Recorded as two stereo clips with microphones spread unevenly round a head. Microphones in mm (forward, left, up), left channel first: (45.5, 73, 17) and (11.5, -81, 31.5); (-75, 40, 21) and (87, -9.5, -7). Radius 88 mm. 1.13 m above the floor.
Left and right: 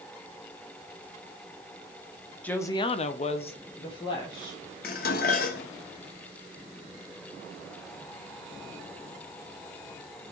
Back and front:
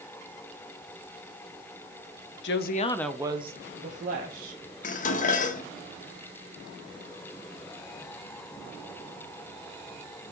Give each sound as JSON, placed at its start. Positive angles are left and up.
{"t": 2.4, "sound": "a woman speaking", "azimuth_deg": 155, "distance_m": 1.0}
{"t": 4.8, "sound": "dishes clattering", "azimuth_deg": 120, "distance_m": 0.9}